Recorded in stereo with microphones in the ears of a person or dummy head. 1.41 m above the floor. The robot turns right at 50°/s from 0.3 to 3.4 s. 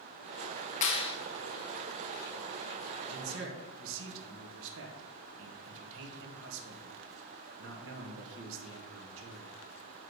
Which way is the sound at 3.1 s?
85° right.